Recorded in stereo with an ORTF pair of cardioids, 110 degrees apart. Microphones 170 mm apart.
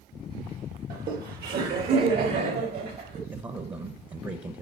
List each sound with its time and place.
0.9 s laughter: 65° right, 1.6 m
3.3 s a man speaking: 30° right, 1.0 m